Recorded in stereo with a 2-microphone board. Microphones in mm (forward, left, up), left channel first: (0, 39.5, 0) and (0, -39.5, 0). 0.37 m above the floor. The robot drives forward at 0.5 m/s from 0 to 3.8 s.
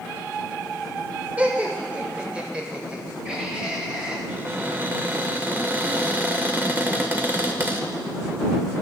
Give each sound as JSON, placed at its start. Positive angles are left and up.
{"t": 1.4, "sound": "laughter", "side_deg": -20, "distance_m": 1.2}
{"t": 4.3, "sound": "a cupboard door", "side_deg": -25, "distance_m": 0.8}